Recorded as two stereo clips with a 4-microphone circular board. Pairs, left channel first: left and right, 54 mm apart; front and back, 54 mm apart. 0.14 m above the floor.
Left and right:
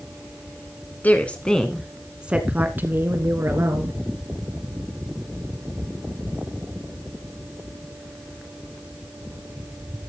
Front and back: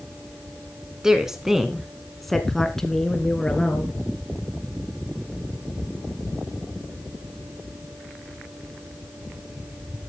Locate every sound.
1.0 s a woman speaking: 110° left, 1.3 m; by 4.0 s 75° right, 2 m